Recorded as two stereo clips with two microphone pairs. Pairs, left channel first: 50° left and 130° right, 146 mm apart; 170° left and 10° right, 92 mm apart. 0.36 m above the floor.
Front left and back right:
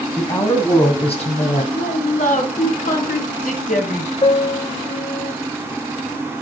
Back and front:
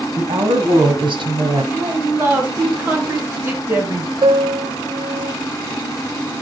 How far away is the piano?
About 0.7 m.